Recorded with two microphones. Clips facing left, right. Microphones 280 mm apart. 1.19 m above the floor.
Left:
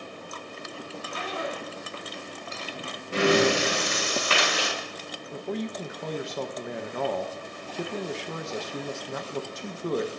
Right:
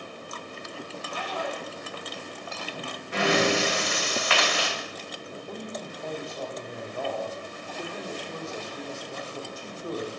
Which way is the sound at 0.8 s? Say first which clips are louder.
Left 2 dB; 30° left (ahead or behind).